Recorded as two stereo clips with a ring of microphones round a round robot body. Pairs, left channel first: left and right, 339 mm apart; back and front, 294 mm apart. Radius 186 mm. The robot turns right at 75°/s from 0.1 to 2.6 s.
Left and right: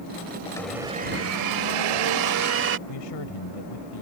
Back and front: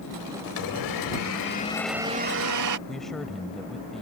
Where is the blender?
165° left; by 2.8 s 35° right.